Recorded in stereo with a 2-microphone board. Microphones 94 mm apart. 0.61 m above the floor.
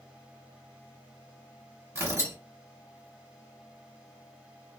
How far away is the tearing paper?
About 1.5 m.